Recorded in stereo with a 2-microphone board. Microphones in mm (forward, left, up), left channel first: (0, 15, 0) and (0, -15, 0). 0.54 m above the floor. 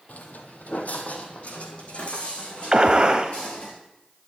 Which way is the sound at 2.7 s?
30° right (ahead or behind).